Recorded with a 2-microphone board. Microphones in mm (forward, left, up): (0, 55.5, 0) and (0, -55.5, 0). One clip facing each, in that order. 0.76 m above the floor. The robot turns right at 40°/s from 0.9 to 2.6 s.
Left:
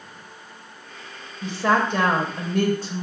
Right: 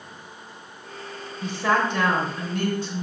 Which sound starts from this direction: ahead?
A woman speaking, at 1.4 s.